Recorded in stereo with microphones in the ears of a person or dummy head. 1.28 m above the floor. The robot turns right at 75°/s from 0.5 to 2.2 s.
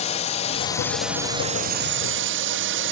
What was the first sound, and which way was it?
A drone, 135° left.